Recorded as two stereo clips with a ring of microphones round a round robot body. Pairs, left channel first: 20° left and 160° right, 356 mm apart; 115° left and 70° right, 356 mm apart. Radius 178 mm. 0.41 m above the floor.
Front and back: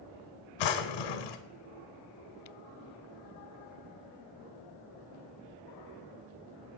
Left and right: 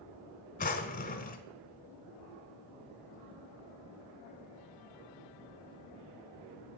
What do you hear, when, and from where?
0.6 s a drawer: 45° left, 0.9 m